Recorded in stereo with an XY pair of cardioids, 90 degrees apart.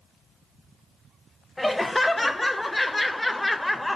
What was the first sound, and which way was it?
Laughter, 10° left.